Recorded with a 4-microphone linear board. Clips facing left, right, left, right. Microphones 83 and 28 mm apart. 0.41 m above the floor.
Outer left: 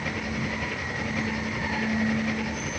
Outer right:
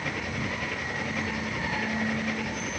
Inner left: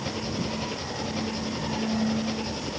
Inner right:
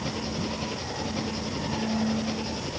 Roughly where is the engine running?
Centre.